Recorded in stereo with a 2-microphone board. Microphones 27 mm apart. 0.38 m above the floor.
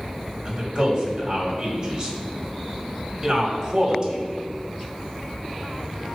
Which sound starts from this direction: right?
A man speaking, at 0.5 s.